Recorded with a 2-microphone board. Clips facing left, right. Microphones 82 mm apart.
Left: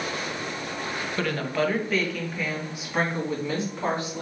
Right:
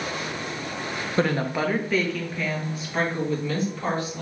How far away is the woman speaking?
About 0.6 m.